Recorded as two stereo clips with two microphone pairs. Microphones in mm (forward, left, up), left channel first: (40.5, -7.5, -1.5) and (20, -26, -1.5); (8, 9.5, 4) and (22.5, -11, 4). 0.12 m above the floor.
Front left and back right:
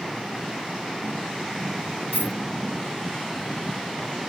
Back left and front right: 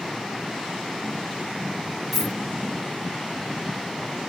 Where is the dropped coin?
135° right, 1.3 m.